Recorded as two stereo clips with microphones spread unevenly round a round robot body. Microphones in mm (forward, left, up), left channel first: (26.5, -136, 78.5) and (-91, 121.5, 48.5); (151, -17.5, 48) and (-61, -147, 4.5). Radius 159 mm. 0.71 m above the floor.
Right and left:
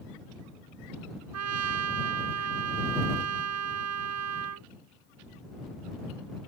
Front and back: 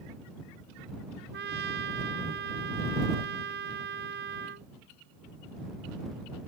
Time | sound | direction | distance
1.3 | a trumpet | 150° left | ?